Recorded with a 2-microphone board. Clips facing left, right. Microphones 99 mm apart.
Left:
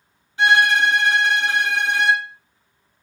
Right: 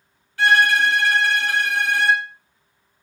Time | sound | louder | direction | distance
0.4 | a violin | even | 20° left (ahead or behind) | 0.8 m